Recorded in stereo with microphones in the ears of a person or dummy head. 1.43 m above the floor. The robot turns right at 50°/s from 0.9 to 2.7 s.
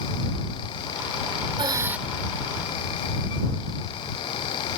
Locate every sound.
1.6 s breathing: 20° right (ahead or behind); by 2.0 s centre (ahead or behind)